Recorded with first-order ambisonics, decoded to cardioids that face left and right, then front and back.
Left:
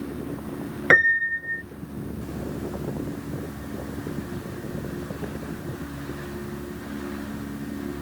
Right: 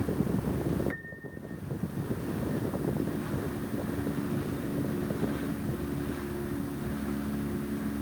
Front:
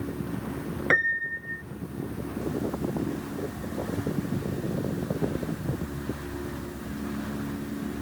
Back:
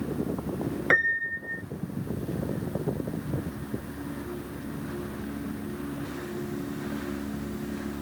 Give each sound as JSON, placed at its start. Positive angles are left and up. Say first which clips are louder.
{"t": 0.9, "sound": "a piano", "louder": "left 24 dB, even", "azimuth_deg": 95}